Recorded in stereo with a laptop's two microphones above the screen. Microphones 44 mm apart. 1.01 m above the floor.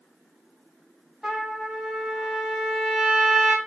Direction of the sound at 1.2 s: 15° right (ahead or behind).